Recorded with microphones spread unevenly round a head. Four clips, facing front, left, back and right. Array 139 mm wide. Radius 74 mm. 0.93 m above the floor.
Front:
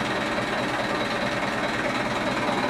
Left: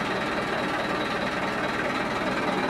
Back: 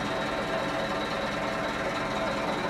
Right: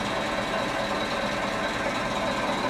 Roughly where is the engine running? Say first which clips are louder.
Even, front 4 dB; ahead left.